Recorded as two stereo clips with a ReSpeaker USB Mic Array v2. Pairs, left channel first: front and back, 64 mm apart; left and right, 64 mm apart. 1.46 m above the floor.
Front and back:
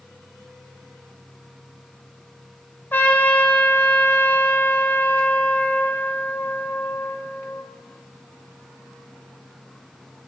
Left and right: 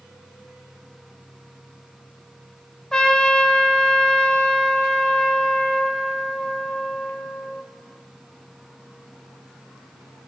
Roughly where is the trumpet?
Ahead.